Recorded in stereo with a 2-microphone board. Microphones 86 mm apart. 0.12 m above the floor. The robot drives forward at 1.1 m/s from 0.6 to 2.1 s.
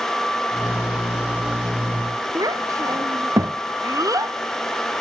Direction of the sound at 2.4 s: 45° right (ahead or behind).